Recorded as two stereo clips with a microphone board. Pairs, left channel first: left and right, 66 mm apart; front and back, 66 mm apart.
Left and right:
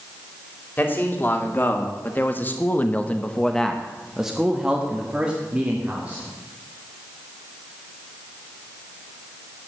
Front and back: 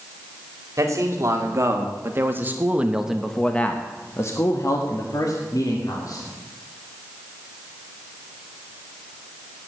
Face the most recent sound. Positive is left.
turn(degrees=-20)